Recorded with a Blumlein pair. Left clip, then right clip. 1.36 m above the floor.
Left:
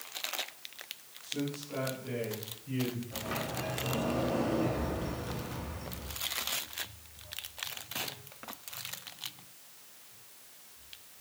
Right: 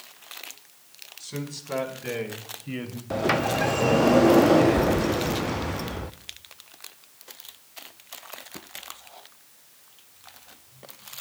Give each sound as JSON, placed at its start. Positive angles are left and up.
{"t": 1.2, "sound": "a man speaking", "azimuth_deg": -50, "distance_m": 5.0}
{"t": 3.1, "sound": "a sliding door", "azimuth_deg": -45, "distance_m": 0.7}